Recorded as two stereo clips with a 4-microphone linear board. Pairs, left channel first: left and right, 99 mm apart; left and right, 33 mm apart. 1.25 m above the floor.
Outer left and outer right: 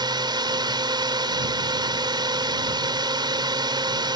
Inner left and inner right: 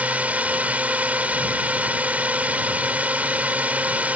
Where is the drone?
50° right (ahead or behind).